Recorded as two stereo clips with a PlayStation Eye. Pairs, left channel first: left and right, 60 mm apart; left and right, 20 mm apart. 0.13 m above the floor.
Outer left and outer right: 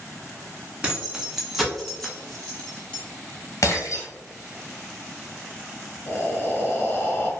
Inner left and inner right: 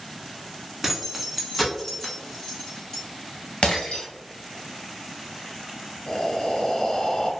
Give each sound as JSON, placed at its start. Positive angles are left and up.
{"t": 0.8, "sound": "keys jangling", "side_deg": -15, "distance_m": 0.7}
{"t": 3.6, "sound": "breaking glass", "side_deg": 55, "distance_m": 1.3}
{"t": 6.1, "sound": "breathing", "side_deg": 40, "distance_m": 0.7}